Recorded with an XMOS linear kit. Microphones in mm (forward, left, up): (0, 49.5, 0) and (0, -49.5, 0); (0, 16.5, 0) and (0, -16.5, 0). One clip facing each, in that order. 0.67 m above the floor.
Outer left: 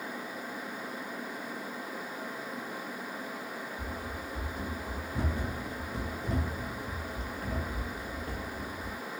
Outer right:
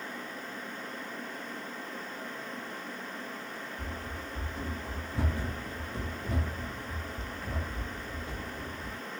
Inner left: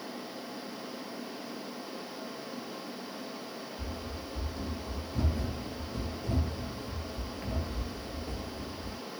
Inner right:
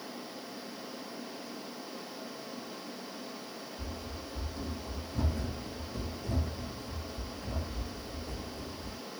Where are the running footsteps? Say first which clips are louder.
Outer left 1 dB, inner left 2 dB; 10° left (ahead or behind), 1.9 m; by 9.0 s 35° left (ahead or behind), 1.3 m.